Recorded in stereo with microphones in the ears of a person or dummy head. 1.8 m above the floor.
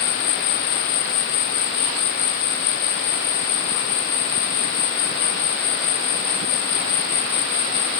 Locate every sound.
0.0 s an insect: 55° left (ahead or behind)